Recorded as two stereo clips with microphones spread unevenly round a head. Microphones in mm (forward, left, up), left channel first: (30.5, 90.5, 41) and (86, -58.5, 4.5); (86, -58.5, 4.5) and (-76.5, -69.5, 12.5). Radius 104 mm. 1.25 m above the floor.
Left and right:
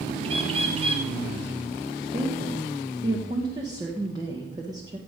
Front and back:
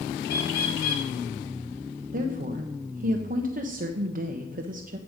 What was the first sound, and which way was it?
A bird, 15° right.